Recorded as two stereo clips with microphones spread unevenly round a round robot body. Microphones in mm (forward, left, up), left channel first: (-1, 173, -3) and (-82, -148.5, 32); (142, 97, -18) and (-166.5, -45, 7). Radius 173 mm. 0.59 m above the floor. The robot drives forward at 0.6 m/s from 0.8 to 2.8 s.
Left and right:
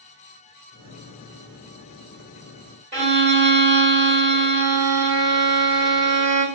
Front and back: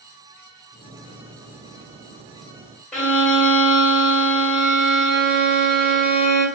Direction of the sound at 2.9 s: 60° right.